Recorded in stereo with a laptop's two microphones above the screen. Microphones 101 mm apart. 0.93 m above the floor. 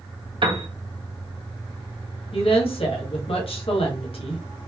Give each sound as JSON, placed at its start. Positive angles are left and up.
{"t": 0.4, "sound": "a piano", "side_deg": -55, "distance_m": 0.9}
{"t": 2.3, "sound": "a woman speaking", "side_deg": 70, "distance_m": 1.2}